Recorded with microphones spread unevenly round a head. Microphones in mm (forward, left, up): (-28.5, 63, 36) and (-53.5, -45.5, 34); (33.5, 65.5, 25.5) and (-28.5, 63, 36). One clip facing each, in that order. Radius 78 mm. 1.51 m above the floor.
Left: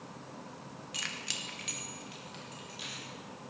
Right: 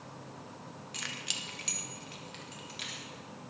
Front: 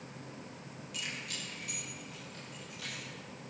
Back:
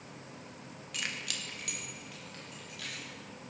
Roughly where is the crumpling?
I don't hear crumpling.